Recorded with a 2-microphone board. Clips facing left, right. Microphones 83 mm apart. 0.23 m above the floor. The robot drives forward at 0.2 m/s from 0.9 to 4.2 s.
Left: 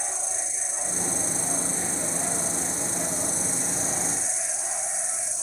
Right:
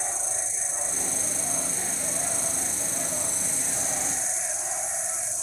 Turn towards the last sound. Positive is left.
turn(degrees=30)  # may be behind; listen again after turning